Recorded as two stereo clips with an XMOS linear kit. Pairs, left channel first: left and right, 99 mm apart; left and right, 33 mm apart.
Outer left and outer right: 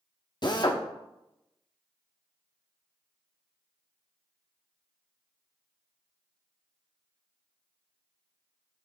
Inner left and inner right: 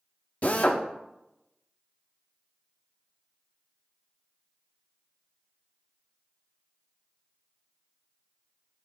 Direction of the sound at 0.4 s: 50° left (ahead or behind).